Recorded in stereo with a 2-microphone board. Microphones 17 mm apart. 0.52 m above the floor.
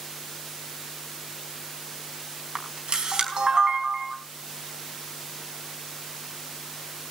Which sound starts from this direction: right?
A camera shutter, at 2.5 s.